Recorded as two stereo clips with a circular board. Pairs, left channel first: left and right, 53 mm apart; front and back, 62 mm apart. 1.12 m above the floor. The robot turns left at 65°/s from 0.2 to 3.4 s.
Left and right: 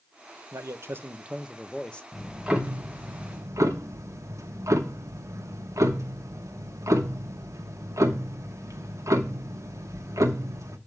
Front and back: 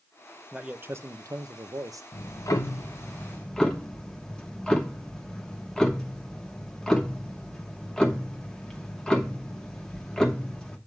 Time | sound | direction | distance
0.5 | a man speaking | 105° right | 0.6 m
2.1 | ticking | 5° left | 1.0 m